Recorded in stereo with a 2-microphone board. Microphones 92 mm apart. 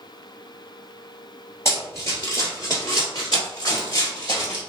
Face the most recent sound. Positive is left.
turn(degrees=35)  # may be behind; listen again after turning